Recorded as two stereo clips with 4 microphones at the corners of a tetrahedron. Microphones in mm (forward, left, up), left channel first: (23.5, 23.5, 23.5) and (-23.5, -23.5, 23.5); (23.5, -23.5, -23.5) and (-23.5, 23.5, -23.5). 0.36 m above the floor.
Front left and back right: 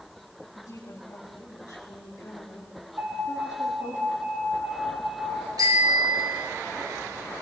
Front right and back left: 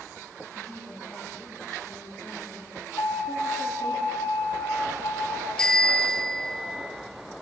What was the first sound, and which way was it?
A woman speaking, 30° left.